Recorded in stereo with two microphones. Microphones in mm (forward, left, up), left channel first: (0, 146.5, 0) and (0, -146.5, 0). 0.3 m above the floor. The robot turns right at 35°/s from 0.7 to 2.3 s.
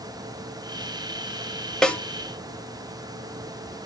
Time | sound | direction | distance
1.8 | a snare drum | centre (ahead or behind) | 0.9 m